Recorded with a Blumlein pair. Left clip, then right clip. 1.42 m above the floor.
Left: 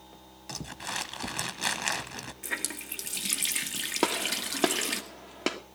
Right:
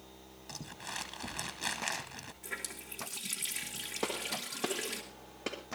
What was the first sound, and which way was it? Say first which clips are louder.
Crumpling: left 7 dB; 20° left.